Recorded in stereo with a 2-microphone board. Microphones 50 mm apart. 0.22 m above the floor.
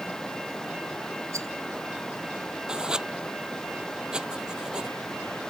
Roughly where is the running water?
Centre.